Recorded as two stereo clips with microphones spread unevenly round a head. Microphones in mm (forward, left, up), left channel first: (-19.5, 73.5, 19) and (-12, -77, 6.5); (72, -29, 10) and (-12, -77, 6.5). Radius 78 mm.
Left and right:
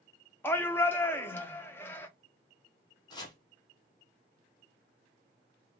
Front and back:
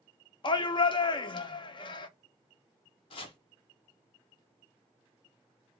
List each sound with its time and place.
0.4 s a shout: 15° left, 0.5 m
3.1 s chopping: 30° left, 0.7 m